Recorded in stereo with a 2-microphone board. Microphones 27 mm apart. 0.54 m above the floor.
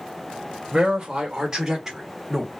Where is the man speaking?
30° right (ahead or behind), 1.8 m; by 2.6 s 5° left (ahead or behind), 1.2 m.